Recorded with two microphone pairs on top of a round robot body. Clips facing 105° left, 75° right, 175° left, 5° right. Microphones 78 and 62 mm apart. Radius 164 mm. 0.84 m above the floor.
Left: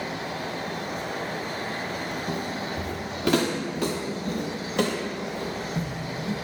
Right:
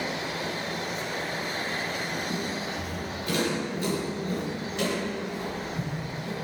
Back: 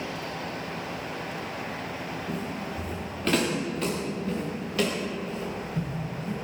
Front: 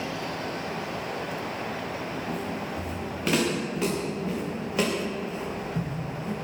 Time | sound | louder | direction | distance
2.3 | footsteps | left 2 dB, front 1 dB | 85° left | 5.5 m